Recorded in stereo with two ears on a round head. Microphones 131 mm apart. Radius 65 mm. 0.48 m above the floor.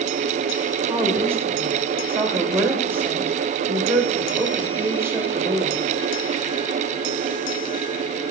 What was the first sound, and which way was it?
A woman speaking, 15° right (ahead or behind).